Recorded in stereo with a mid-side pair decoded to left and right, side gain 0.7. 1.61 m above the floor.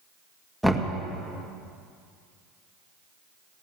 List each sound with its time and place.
0.6 s knocking: straight ahead, 1.8 m